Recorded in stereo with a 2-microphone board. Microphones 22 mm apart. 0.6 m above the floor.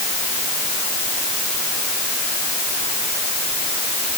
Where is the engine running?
No engine running in this recording.